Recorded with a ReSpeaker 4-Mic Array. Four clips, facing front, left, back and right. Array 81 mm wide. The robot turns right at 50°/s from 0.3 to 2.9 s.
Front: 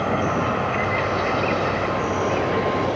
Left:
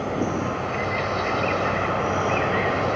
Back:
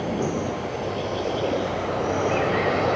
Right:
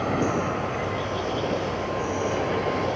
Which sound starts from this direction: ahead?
An insect, at 0.0 s.